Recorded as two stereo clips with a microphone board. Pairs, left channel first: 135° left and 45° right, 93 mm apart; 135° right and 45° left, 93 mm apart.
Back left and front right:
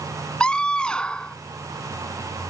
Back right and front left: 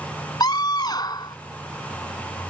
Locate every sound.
0.4 s a scream: 150° right